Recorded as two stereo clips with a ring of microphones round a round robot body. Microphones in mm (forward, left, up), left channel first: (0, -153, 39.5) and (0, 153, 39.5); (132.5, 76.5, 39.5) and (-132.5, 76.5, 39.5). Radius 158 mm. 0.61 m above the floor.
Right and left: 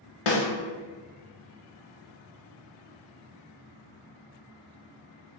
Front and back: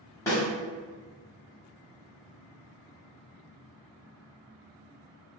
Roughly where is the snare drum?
Right.